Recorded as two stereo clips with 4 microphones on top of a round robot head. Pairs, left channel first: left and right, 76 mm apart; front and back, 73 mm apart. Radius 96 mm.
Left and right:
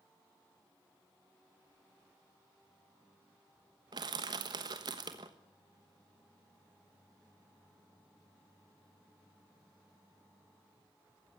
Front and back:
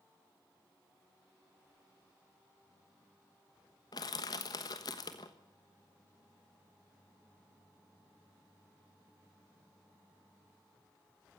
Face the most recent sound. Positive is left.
turn(degrees=-45)